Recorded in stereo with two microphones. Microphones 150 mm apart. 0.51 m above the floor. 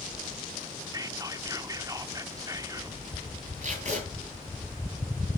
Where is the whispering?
25° right (ahead or behind), 0.8 m.